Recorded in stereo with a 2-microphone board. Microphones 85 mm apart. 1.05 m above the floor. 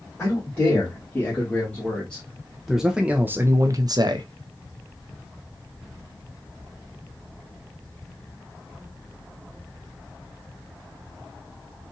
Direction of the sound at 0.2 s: 30° left (ahead or behind).